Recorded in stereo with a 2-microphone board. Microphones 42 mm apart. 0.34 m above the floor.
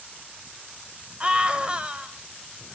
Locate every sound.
1.2 s a scream: 25° right (ahead or behind), 1.4 m